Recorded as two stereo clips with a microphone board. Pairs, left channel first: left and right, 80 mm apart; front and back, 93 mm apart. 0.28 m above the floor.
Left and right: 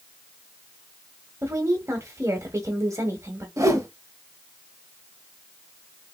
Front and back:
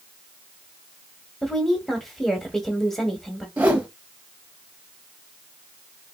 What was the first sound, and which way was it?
A woman speaking, 85° right.